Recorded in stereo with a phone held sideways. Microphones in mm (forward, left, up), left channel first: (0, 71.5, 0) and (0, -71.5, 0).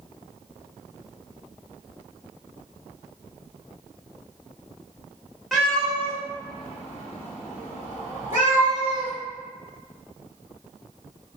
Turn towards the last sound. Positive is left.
turn(degrees=70)  # may be behind; listen again after turning